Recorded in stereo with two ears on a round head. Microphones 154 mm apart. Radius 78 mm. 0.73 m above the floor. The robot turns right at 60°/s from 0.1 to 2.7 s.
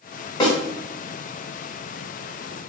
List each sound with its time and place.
0.4 s a snare drum: 25° left (ahead or behind), 1.3 m; by 0.6 s 35° left (ahead or behind), 1.3 m